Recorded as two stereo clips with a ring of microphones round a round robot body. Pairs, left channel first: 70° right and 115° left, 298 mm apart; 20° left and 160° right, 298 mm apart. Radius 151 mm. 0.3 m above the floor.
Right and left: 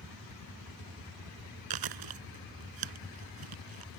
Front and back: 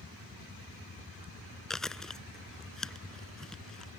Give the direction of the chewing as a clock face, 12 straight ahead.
8 o'clock.